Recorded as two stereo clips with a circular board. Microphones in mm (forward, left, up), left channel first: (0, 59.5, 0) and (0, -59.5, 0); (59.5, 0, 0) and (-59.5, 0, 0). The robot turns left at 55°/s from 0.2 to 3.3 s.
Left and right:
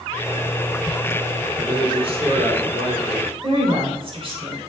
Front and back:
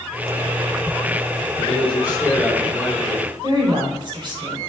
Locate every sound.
1.6 s a man speaking: 25° right, 3 m; by 3.3 s 120° right, 3 m
3.4 s a woman speaking: 130° right, 4 m